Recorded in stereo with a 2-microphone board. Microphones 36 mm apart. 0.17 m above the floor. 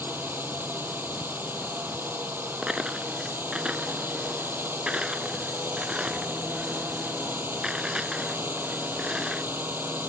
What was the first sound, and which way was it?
A drone, 75° right (ahead or behind).